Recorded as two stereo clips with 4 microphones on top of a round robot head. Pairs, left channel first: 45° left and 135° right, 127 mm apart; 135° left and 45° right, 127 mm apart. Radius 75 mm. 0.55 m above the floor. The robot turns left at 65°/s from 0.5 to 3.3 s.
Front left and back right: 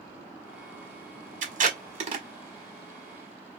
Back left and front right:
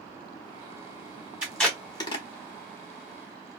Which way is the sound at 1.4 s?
125° right.